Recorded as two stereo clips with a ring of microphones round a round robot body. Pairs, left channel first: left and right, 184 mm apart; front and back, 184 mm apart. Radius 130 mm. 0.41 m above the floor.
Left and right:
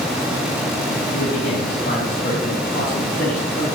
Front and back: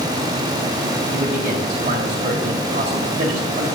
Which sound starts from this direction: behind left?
A man speaking, at 1.1 s.